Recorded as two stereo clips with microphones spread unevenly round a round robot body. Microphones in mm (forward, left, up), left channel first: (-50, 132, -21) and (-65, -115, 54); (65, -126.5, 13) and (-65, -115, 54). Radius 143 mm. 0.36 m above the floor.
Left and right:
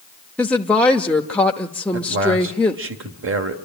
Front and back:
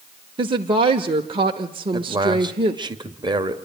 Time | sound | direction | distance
0.4 | a woman speaking | 130° left | 0.9 m
1.9 | a man speaking | 125° right | 1.8 m